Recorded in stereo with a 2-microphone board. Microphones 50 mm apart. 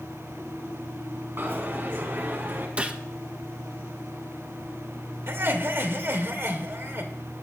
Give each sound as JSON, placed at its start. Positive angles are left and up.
{"t": 1.4, "sound": "a dropped coin", "side_deg": -45, "distance_m": 3.5}
{"t": 2.8, "sound": "a gunshot", "side_deg": -30, "distance_m": 1.2}
{"t": 5.3, "sound": "laughter", "side_deg": -55, "distance_m": 3.0}